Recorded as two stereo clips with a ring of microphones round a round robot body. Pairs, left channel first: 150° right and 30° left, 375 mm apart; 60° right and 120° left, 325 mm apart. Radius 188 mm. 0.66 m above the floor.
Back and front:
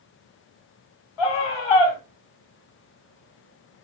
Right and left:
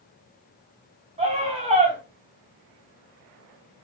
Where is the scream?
165° right, 7 m.